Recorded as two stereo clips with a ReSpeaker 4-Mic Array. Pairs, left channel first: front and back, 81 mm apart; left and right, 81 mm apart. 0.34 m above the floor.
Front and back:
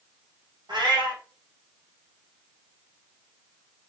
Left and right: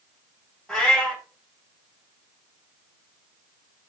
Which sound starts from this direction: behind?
A cat meowing, at 0.7 s.